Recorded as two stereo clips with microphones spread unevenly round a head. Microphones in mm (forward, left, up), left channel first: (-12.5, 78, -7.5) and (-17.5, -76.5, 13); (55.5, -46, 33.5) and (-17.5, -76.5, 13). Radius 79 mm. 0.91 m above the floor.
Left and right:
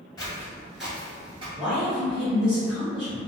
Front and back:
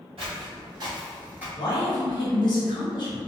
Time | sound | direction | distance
0.2 | footsteps | 155° left | 1.3 m
1.6 | a man speaking | 5° right | 1.2 m